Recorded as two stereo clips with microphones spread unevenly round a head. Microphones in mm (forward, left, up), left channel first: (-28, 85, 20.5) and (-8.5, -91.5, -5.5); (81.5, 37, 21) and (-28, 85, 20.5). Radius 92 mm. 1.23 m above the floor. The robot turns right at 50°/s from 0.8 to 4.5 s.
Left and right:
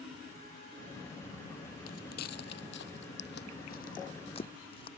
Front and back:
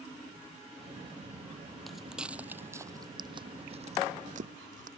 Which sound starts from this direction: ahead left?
Footsteps, at 1.9 s.